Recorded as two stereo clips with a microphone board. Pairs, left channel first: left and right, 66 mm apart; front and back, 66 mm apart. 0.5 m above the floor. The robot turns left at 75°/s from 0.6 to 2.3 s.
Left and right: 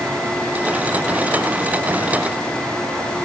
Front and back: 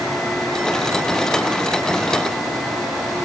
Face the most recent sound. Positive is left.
No sound to turn to.